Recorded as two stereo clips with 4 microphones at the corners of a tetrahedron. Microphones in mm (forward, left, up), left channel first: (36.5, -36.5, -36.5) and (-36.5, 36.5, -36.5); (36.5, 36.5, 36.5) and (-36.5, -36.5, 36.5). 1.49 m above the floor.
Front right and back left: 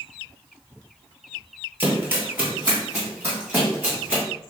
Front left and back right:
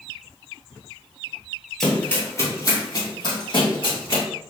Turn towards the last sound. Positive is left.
turn(degrees=60)